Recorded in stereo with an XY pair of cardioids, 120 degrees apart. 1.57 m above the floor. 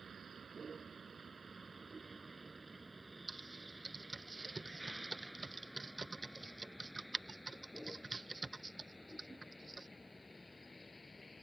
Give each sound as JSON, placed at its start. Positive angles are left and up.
{"t": 0.0, "sound": "a vehicle", "azimuth_deg": -35}
{"t": 3.3, "sound": "typing on a keyboard", "azimuth_deg": -15}